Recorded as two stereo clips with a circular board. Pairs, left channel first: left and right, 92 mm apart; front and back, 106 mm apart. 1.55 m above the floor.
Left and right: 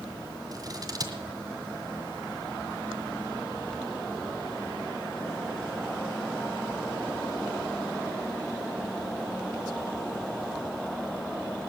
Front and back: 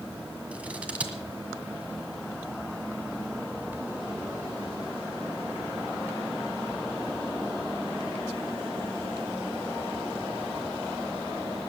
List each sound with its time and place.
0.5 s scissors: 105° right, 1.9 m